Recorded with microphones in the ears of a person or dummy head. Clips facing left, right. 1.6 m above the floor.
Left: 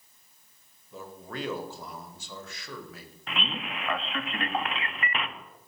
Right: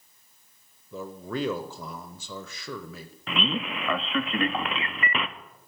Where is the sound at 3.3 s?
75° right (ahead or behind), 0.6 m.